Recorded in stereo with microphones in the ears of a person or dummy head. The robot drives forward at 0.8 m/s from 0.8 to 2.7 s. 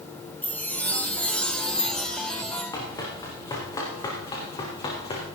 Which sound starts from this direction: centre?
A chime, at 0.4 s.